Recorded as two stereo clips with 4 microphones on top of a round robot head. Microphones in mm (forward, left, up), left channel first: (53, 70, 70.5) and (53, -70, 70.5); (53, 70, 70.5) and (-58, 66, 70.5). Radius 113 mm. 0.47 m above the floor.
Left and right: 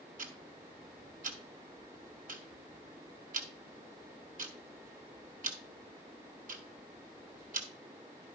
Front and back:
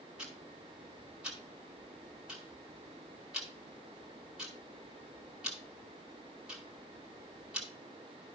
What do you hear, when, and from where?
0.2 s ticking: 95° right, 1.8 m